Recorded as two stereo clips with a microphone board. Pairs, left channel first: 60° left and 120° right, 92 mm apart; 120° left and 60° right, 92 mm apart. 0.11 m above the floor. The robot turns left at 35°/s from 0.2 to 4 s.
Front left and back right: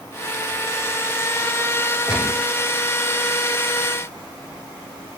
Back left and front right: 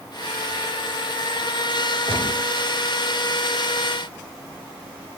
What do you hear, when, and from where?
2.1 s a gunshot: 40° right, 4.5 m; by 2.4 s 50° right, 4.5 m